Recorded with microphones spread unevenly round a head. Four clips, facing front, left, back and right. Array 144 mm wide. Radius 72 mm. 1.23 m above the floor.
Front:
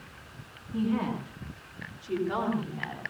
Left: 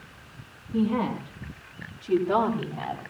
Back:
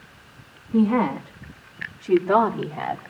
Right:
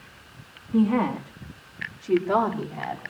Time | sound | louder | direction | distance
0.7 | a woman speaking | right 4 dB, back 9 dB | 150° right | 2.5 m